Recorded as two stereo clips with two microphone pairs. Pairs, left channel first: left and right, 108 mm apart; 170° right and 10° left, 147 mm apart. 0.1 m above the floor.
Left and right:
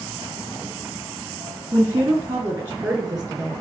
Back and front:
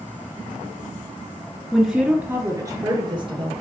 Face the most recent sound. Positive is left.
turn(degrees=-20)